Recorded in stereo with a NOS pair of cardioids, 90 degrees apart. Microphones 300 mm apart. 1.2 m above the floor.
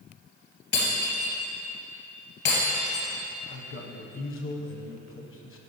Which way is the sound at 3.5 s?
45° left.